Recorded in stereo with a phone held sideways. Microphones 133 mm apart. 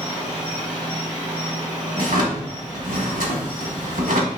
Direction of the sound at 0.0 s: 15° right (ahead or behind).